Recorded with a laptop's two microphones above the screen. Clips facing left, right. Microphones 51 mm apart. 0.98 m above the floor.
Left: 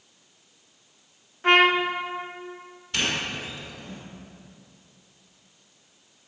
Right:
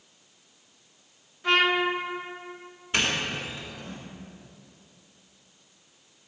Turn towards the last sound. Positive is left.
turn(degrees=-25)  # may be behind; listen again after turning